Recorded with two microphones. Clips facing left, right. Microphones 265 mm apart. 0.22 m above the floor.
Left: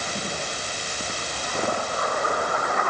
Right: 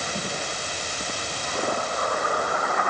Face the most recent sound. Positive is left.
No sound to turn to.